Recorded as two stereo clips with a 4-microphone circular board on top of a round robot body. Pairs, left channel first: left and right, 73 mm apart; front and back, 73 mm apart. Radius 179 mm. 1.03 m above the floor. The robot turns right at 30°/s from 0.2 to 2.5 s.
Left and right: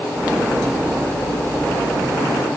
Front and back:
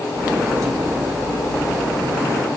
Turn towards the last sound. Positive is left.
No sound to turn to.